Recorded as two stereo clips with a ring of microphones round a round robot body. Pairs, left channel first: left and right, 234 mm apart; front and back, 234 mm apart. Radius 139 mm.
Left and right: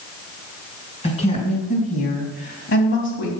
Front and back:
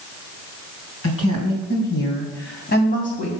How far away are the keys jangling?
No keys jangling in this recording.